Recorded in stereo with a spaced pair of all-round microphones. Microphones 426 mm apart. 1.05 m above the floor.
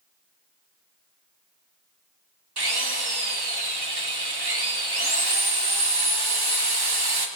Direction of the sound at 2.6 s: 65° right (ahead or behind).